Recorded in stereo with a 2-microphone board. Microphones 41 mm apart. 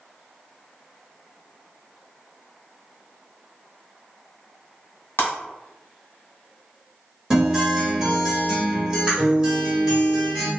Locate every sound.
5.2 s breaking glass: 65° left (ahead or behind), 1.0 m
7.3 s a guitar: 15° right (ahead or behind), 1.5 m